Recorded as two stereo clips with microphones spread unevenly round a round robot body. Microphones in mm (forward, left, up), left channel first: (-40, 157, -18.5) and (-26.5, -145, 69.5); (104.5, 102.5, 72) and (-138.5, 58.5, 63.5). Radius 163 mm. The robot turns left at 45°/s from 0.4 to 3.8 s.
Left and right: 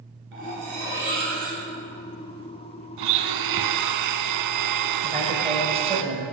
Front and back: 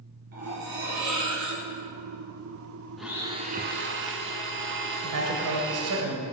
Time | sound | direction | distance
0.3 | cutlery clinking | 110° right | 3.5 m
3.0 | a blender | 80° right | 0.8 m
5.0 | a man speaking | 165° right | 2.5 m